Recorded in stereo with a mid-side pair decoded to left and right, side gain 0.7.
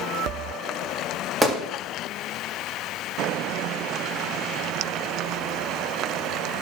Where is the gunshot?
5° right, 1.9 m.